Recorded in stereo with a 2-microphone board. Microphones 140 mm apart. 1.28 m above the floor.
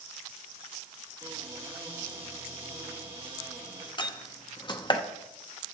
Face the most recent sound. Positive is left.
turn(degrees=35)  # may be behind; listen again after turning